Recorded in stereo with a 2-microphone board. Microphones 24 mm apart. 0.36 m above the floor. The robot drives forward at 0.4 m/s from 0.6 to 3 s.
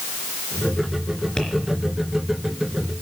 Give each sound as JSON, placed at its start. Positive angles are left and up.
{"t": 1.4, "sound": "tapping", "side_deg": 25, "distance_m": 3.5}